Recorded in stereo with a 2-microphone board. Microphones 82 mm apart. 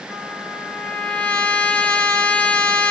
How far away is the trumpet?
About 1.3 m.